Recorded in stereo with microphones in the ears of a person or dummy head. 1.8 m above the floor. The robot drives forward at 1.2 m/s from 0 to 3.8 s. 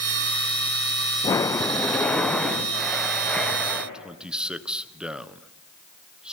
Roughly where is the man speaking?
Centre.